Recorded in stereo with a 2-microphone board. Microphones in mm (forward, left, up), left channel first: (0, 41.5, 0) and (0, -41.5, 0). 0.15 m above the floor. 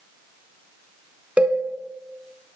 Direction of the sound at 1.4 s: 15° right (ahead or behind).